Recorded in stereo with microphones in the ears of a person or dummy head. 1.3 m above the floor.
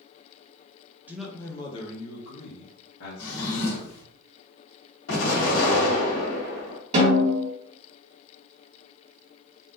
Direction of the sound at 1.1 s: 10° right (ahead or behind).